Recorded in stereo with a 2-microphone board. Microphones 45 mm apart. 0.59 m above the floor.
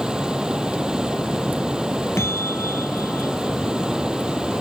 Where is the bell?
75° left (ahead or behind).